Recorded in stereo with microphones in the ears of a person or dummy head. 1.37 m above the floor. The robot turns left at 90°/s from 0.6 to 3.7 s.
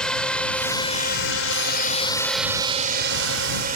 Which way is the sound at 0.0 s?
5° left (ahead or behind).